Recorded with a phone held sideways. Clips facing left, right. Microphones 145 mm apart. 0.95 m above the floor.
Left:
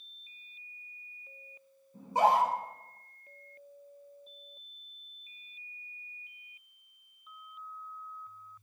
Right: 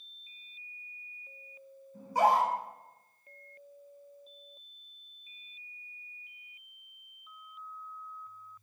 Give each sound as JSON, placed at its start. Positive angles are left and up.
{"t": 1.9, "sound": "a scream", "side_deg": 20, "distance_m": 4.5}